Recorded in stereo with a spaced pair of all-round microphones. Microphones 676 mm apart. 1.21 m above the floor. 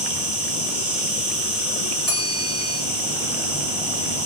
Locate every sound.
0.0 s an insect: 20° right (ahead or behind), 7.5 m
2.1 s a bell: 70° left (ahead or behind), 9 m